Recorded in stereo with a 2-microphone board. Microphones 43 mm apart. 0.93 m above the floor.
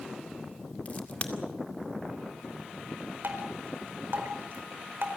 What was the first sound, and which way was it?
A crack, 35° left (ahead or behind).